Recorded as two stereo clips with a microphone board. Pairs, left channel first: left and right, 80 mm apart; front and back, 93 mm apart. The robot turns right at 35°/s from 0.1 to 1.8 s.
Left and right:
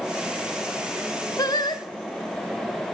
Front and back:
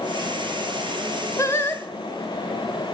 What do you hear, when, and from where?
1.4 s singing: 55° left, 0.6 m; by 1.9 s 70° left, 0.6 m